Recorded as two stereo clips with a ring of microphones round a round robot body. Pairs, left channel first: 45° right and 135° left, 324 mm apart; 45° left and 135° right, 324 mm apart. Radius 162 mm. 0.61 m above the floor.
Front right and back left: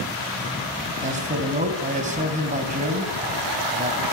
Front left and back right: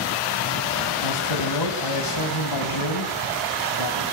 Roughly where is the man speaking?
Ahead left.